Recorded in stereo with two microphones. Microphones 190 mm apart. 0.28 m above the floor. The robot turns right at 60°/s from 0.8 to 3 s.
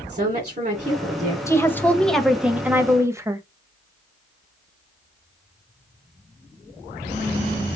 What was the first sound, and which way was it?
A woman speaking, 45° right.